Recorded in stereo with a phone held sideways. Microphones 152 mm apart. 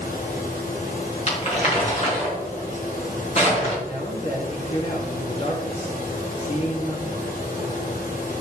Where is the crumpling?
50° left (ahead or behind), 4.5 m.